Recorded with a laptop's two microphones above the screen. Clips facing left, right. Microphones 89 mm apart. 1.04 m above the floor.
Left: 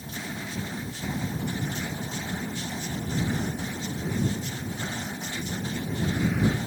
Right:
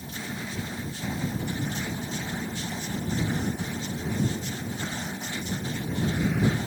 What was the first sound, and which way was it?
Only background noise.